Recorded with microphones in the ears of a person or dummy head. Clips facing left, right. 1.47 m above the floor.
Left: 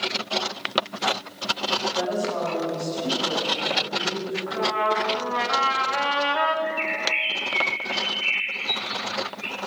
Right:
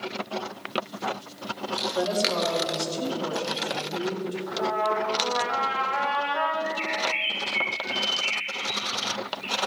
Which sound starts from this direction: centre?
A bird, at 6.6 s.